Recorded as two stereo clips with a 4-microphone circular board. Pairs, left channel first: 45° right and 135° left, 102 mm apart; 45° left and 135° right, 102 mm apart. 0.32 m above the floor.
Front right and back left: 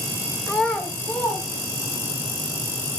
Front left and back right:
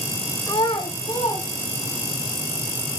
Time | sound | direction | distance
0.5 | a child speaking | 50° left | 0.6 m